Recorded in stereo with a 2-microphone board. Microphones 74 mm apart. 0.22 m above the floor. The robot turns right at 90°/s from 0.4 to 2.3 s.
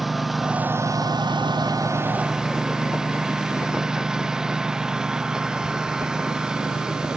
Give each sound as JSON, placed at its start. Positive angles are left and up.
{"t": 0.0, "sound": "a lawn mower", "side_deg": 0}